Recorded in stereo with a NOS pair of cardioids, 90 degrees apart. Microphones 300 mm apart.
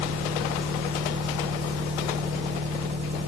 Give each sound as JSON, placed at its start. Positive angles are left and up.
{"t": 0.0, "sound": "an engine running", "azimuth_deg": -20, "distance_m": 4.0}